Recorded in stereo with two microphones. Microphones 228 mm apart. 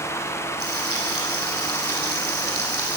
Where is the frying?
75° right (ahead or behind), 9 m.